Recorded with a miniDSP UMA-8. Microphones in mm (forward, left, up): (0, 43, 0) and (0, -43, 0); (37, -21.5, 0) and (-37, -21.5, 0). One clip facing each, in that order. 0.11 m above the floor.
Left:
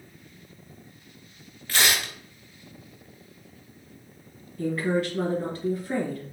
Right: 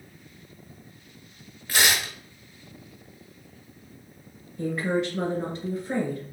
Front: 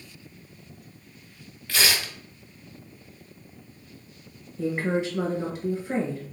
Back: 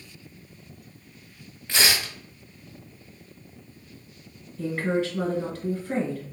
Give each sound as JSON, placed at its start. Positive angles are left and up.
{"t": 1.7, "sound": "tearing paper", "azimuth_deg": -145, "distance_m": 0.9}
{"t": 4.6, "sound": "a woman speaking", "azimuth_deg": -50, "distance_m": 1.4}